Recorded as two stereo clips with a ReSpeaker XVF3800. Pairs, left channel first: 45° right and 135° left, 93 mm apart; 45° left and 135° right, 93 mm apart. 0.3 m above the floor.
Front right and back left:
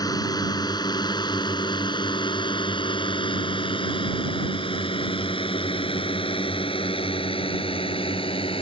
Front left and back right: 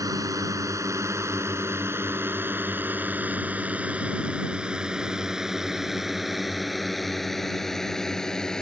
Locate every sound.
0.0 s a drone: 85° right; by 8.6 s 40° right